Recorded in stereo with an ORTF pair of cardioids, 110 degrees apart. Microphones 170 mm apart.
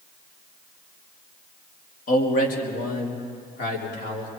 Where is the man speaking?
55° left, 2.5 m; by 4.3 s 60° left, 4.5 m.